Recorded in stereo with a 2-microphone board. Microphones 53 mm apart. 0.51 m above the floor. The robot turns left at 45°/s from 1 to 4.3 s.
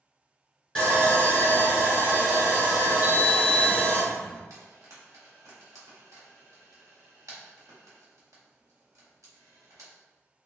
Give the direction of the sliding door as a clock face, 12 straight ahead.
10 o'clock.